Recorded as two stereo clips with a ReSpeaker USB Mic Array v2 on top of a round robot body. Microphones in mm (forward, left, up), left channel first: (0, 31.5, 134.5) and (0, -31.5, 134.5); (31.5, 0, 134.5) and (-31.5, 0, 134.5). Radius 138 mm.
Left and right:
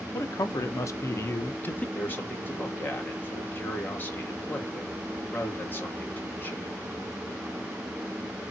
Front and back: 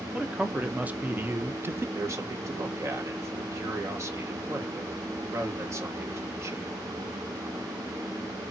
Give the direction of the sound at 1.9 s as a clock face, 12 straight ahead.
7 o'clock.